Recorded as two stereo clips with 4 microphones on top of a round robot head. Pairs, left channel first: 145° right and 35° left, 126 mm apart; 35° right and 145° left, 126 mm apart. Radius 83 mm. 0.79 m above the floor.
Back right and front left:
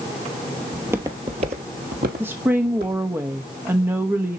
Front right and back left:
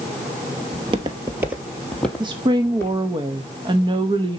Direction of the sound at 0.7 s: 120° left.